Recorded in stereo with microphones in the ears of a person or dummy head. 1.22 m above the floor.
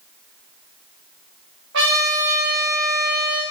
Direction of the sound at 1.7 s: 70° right (ahead or behind).